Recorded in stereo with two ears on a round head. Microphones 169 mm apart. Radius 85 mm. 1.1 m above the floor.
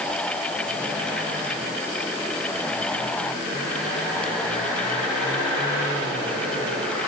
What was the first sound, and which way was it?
Only background noise.